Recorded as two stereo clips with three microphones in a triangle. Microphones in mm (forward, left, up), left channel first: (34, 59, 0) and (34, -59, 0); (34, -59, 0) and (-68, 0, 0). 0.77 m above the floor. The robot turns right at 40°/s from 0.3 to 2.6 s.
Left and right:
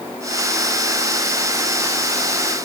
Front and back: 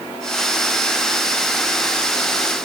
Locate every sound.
Only background noise.